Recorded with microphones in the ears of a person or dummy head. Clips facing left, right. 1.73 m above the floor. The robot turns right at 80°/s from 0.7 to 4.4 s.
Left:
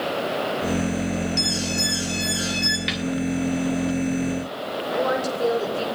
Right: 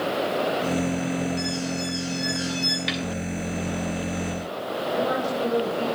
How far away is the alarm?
About 2.5 m.